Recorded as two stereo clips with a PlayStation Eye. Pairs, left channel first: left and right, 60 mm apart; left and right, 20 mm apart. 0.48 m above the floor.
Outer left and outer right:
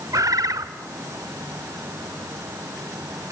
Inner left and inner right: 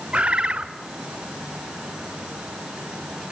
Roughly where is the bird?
Right.